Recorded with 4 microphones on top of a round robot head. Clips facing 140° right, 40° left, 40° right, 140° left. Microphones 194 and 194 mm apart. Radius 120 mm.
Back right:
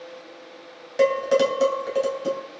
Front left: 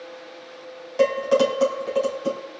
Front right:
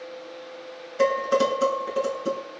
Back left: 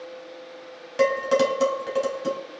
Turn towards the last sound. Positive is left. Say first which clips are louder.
# even, back left 1 dB
turn(degrees=150)